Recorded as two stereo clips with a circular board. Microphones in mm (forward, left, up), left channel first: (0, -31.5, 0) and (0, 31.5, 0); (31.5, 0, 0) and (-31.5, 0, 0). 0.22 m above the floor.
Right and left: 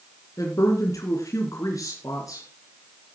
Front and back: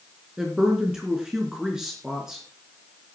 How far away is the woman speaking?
About 3 m.